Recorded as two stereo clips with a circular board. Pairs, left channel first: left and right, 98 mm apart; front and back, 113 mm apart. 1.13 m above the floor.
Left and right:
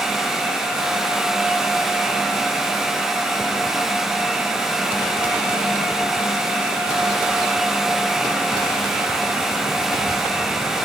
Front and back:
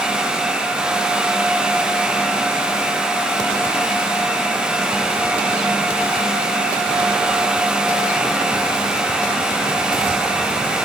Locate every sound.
Only background noise.